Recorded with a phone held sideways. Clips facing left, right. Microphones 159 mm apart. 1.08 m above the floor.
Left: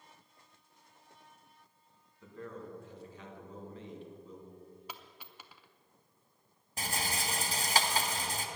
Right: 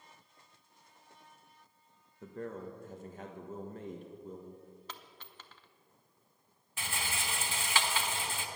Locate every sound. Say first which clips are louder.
2.2 s a man speaking: right 4 dB; 50° right (ahead or behind), 1.4 m
4.9 s a dropped coin: left 1 dB; 10° left (ahead or behind), 0.8 m
6.8 s a rattle: left 3 dB; 40° left (ahead or behind), 1.0 m